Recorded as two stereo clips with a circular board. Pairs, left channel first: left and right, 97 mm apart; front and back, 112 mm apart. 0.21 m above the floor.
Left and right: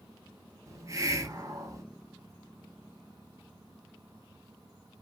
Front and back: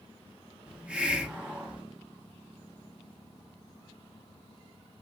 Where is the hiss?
105° right, 0.6 m.